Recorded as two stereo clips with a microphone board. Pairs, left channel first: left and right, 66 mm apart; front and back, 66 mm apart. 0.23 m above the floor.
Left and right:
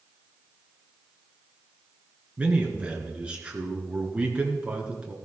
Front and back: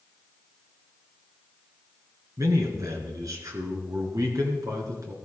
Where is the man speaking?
160° right, 3 m.